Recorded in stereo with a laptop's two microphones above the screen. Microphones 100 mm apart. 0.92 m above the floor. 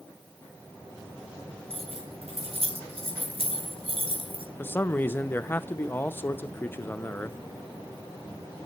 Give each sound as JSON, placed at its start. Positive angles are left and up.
{"t": 1.7, "sound": "keys jangling", "side_deg": -85, "distance_m": 5.0}
{"t": 4.6, "sound": "a man speaking", "side_deg": 20, "distance_m": 0.7}